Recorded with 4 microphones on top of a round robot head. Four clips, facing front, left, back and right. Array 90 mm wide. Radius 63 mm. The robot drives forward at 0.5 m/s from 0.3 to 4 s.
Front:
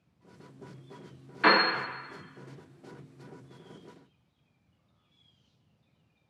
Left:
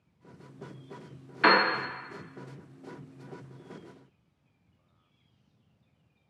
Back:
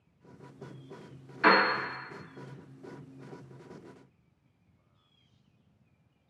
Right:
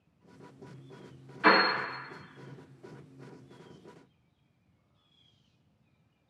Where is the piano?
80° left, 1.1 m; by 1.6 s 85° left, 1.1 m.